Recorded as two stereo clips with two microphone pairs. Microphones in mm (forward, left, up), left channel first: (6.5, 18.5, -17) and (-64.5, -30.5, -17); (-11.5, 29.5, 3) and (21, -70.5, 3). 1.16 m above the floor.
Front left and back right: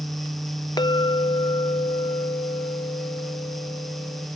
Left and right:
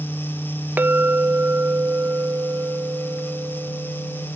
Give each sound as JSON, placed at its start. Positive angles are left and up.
{"t": 0.8, "sound": "a clink", "azimuth_deg": 0}